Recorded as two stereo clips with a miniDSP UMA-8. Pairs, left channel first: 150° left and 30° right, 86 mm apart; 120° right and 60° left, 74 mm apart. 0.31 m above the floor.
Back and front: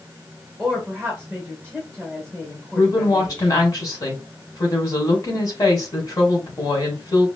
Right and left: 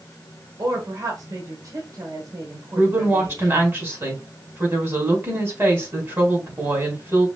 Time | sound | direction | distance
0.6 | a woman speaking | 70° left | 1.8 m
2.8 | a woman speaking | 110° left | 2.5 m